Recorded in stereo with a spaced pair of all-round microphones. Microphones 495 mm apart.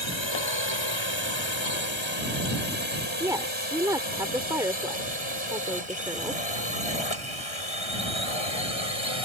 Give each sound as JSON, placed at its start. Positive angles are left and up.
{"t": 0.0, "sound": "a drone", "side_deg": 65}
{"t": 3.2, "sound": "a woman speaking", "side_deg": -5}